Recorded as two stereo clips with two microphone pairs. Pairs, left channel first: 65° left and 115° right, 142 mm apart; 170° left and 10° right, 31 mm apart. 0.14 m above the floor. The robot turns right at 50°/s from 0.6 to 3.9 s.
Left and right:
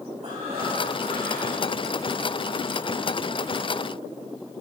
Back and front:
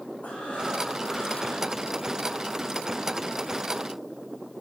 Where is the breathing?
155° right, 4 m; by 1.7 s 100° right, 4 m.